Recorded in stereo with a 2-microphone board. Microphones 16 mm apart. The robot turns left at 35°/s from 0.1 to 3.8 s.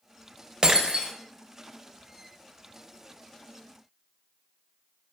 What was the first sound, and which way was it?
Breaking glass, 55° right (ahead or behind).